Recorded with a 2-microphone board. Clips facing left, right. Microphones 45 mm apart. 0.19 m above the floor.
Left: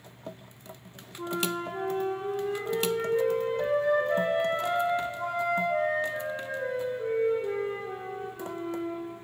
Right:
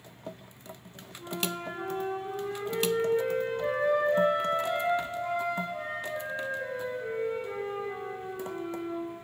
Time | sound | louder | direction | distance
1.2 | a flute | left 4 dB | 80° left | 6.5 m